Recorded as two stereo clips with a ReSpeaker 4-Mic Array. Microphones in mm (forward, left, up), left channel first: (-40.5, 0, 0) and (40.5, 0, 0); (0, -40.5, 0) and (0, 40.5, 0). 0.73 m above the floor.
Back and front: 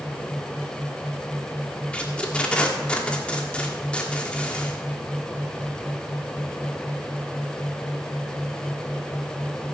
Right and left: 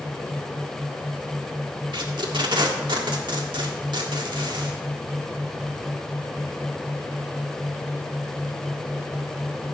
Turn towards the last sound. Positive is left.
turn(degrees=105)